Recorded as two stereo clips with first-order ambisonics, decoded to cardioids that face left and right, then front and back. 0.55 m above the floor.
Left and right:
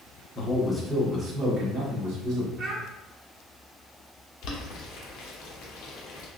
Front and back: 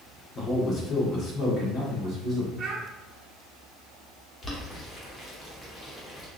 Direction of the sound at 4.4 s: 65° left.